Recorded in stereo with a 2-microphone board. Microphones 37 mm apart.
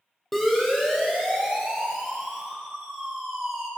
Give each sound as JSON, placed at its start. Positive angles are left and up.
{"t": 0.3, "sound": "a siren", "side_deg": 10, "distance_m": 6.5}